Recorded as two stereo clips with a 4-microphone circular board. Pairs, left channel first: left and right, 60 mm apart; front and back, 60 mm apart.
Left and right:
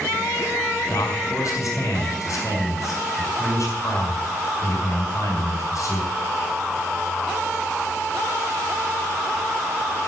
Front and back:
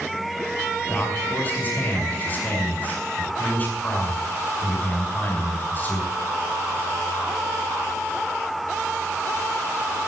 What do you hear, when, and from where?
0.9 s a man speaking: 60° left, 5 m